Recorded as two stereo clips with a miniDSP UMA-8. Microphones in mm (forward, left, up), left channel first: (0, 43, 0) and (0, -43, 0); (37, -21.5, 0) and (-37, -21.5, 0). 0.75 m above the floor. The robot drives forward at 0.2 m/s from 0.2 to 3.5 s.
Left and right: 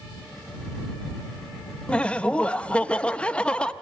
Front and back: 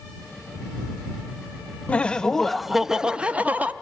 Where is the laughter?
35° left, 0.5 m; by 3.7 s 145° left, 0.5 m.